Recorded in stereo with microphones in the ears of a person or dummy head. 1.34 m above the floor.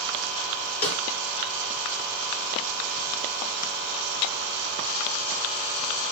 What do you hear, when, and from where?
0.8 s a snare drum: 10° left (ahead or behind), 1.0 m